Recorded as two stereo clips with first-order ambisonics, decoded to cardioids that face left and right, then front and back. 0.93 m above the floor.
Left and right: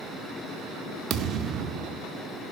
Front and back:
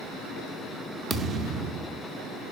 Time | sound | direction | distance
1.1 | a thud | 120° right | 0.6 m